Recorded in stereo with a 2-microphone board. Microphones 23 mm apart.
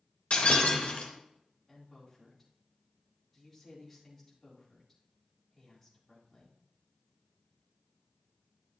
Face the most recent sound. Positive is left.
turn(degrees=10)  # may be behind; listen again after turning